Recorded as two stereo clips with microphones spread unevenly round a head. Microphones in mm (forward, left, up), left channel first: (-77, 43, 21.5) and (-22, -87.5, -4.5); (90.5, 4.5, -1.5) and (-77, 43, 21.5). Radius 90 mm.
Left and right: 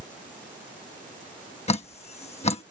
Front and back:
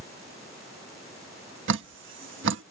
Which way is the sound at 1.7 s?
155° left.